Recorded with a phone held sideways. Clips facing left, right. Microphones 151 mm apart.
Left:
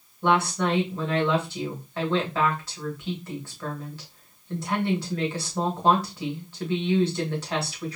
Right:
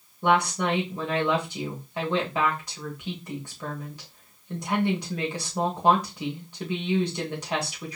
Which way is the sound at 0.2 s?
15° right (ahead or behind).